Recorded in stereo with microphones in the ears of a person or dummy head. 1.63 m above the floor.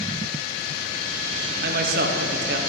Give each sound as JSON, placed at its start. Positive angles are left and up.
{"t": 1.6, "sound": "a man speaking", "side_deg": -65, "distance_m": 1.3}